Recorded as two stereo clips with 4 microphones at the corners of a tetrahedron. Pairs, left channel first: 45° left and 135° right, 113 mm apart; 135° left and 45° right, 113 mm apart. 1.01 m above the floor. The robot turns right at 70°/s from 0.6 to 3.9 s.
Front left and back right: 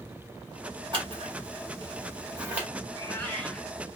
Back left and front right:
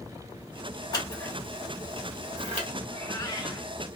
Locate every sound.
0.9 s scissors: 175° right, 1.6 m; by 2.7 s 55° right, 1.6 m
2.9 s a cat meowing: 80° left, 1.0 m; by 3.7 s 140° left, 1.0 m